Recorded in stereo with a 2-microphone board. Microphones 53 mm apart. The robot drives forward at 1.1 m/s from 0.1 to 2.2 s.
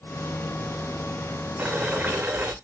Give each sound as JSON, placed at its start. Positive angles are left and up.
{"t": 1.6, "sound": "boiling", "side_deg": -25, "distance_m": 9.5}